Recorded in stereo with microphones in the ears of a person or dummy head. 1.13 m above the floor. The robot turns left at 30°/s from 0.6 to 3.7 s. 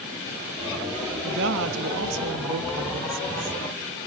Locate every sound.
1.2 s a woman speaking: 60° right, 1.6 m; by 3.6 s 130° right, 1.6 m